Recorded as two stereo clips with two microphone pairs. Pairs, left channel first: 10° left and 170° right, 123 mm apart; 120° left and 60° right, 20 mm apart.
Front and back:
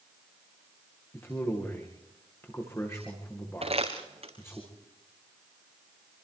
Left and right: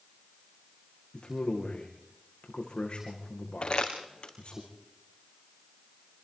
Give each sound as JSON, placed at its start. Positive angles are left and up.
{"t": 1.1, "sound": "a man speaking", "azimuth_deg": 80, "distance_m": 8.0}
{"t": 3.6, "sound": "crumpling", "azimuth_deg": 155, "distance_m": 4.0}